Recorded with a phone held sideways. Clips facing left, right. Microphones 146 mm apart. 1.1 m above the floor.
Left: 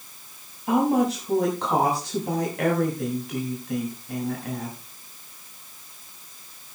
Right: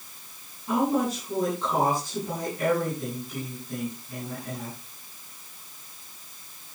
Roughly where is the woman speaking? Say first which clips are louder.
Left 4 dB; left.